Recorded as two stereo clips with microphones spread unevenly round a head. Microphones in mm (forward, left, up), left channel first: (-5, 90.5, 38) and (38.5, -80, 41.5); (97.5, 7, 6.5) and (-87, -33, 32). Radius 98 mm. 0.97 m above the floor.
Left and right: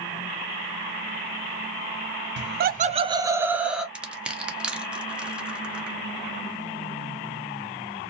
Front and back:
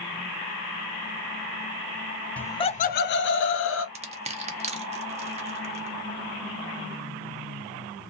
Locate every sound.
2.4 s laughter: 70° right, 0.5 m; by 3.9 s 10° left, 1.1 m
4.0 s crushing: 155° right, 0.7 m